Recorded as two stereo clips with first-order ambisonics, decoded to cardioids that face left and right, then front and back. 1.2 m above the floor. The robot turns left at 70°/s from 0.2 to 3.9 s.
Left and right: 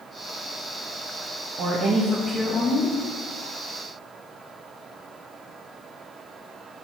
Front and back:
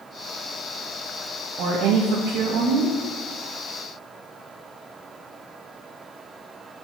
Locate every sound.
1.6 s a woman speaking: 140° right, 1.7 m; by 2.9 s 125° left, 1.7 m